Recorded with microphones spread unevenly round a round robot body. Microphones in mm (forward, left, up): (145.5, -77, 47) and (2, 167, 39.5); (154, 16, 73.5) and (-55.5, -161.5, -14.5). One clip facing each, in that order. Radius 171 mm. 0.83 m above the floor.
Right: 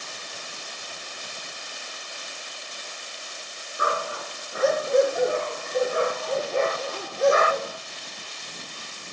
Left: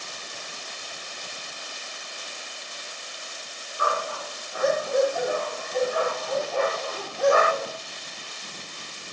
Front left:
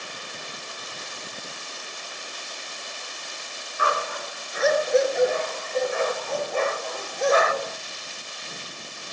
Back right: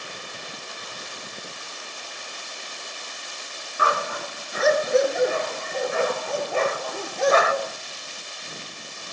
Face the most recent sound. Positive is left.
turn(degrees=-130)